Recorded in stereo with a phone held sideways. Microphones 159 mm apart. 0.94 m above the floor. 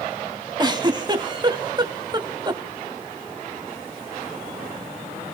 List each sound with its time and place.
0.6 s a giggle: 30° right (ahead or behind), 1.3 m